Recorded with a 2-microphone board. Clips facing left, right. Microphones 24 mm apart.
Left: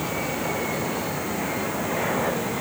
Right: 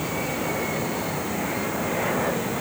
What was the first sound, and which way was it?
Only background noise.